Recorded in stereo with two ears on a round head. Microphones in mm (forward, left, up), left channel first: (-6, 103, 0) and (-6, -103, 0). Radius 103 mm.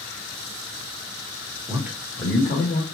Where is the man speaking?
15° right (ahead or behind), 1.1 m; by 2.8 s 30° left (ahead or behind), 1.6 m.